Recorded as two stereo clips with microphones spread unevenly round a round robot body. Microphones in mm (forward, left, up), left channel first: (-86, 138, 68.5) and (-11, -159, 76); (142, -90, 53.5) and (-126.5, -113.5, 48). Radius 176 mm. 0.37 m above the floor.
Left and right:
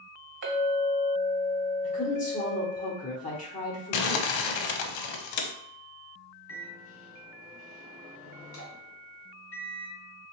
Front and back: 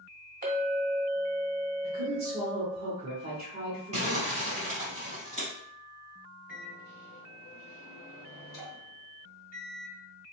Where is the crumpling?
115° left, 0.6 m.